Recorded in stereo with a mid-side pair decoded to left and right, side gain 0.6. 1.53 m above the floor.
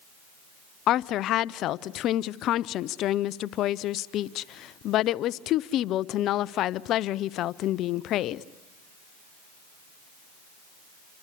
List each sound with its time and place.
0.9 s a woman speaking: 60° left, 0.6 m